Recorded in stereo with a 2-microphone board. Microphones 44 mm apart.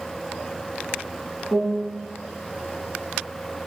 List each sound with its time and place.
1.5 s a piano: 75° left (ahead or behind), 1.6 m